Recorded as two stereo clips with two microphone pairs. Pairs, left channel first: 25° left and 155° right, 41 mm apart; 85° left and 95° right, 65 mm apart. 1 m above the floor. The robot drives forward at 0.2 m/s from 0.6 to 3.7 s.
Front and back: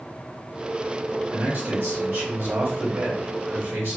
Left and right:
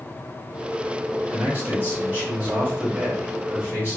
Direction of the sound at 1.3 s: 150° right.